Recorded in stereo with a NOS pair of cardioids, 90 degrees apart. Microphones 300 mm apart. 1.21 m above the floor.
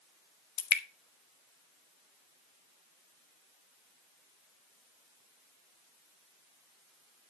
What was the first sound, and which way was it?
Dripping, 65° left.